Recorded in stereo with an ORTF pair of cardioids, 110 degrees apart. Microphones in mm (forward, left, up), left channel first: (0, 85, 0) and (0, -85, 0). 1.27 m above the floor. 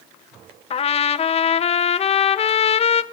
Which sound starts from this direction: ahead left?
A trumpet, at 0.7 s.